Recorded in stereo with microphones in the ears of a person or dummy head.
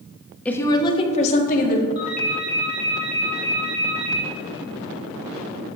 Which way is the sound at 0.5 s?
10° left (ahead or behind).